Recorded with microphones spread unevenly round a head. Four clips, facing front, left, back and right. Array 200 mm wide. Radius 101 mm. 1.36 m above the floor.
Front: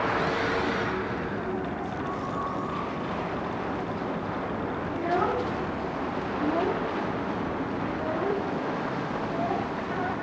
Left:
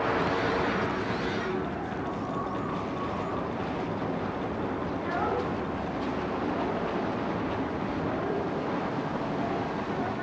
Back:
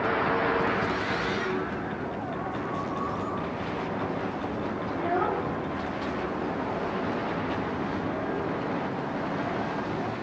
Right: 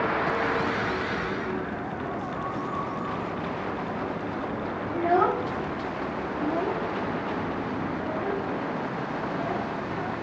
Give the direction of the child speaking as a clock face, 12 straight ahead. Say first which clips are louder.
Right 9 dB, front 1 dB; 3 o'clock.